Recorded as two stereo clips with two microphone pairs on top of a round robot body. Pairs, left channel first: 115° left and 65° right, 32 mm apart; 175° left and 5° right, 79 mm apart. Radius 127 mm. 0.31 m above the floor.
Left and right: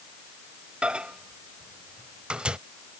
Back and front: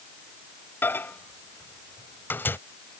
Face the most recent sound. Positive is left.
turn(degrees=-120)